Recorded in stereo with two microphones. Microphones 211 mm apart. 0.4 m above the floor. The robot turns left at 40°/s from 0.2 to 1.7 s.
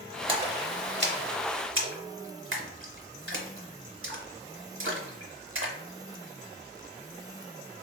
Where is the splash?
25° right (ahead or behind), 0.8 m; by 5.8 s 75° right (ahead or behind), 0.8 m.